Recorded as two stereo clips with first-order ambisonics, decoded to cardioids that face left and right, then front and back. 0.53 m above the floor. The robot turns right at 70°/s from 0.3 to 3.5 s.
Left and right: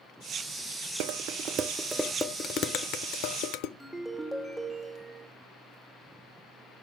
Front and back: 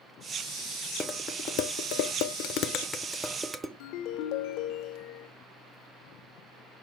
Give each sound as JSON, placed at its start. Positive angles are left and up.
{"t": 1.0, "sound": "dishes clattering", "azimuth_deg": -70, "distance_m": 0.7}
{"t": 3.8, "sound": "a ringtone", "azimuth_deg": -5, "distance_m": 0.9}